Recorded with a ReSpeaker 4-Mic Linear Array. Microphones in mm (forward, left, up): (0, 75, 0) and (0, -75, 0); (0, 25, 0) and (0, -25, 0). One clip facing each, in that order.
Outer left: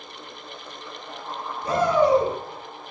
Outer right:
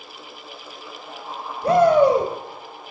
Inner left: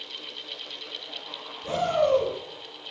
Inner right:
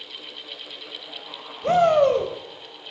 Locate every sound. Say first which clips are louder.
1.6 s a shout: outer right 5 dB, inner right 7 dB; 65° right (ahead or behind), 3 m